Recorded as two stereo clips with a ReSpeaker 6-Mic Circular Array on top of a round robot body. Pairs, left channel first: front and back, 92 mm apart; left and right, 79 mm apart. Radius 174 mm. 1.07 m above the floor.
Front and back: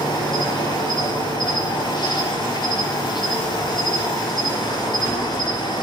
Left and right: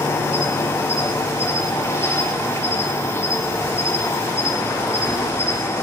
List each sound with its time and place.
0.0 s an insect: 30° left, 5.5 m